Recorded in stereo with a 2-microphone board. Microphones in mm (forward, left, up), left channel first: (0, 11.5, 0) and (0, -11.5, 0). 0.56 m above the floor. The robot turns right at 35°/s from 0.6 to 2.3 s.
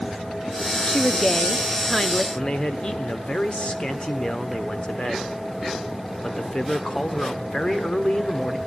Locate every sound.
0.9 s a woman speaking: 25° left (ahead or behind), 0.6 m; by 2.2 s 5° left (ahead or behind), 0.6 m
2.4 s a man speaking: 45° left (ahead or behind), 1.1 m